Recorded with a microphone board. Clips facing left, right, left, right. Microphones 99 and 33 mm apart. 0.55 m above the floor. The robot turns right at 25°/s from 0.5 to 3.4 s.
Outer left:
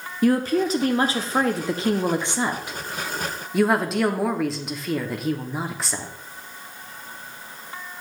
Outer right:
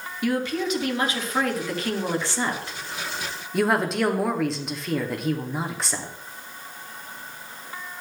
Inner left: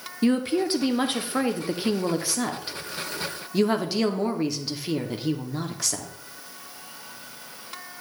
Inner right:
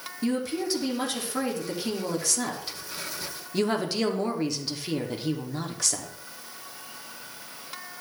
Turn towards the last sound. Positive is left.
turn(degrees=180)